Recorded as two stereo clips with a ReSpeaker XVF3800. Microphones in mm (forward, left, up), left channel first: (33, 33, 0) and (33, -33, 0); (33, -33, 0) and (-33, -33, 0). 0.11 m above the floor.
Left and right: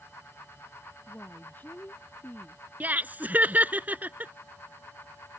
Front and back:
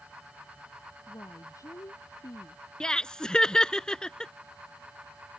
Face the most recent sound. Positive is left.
turn(degrees=-65)